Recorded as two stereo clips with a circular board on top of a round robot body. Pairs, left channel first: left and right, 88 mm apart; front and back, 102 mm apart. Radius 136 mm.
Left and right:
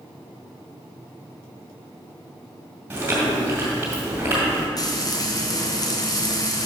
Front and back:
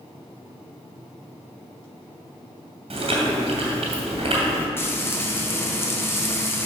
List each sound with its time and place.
2.9 s chewing: 160° right, 2.0 m
4.8 s frying: 60° left, 1.5 m